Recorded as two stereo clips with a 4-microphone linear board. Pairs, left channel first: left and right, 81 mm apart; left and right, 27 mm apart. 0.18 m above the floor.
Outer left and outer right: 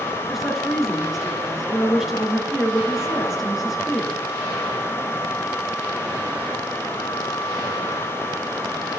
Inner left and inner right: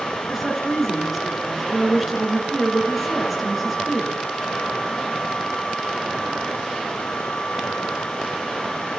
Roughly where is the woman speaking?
Centre.